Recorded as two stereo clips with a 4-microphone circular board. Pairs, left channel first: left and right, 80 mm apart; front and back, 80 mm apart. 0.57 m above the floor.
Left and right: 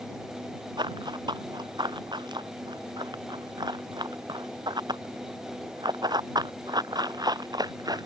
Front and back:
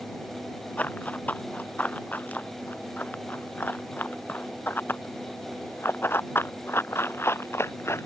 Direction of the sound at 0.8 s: 70° right.